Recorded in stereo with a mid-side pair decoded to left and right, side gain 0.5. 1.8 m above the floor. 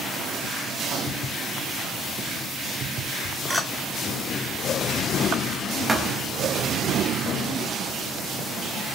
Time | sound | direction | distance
3.5 | a clink | 5° right | 2.5 m
5.9 | a thud | 20° right | 4.5 m